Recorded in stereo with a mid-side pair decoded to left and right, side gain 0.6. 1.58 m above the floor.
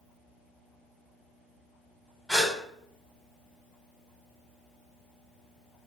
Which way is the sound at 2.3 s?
Straight ahead.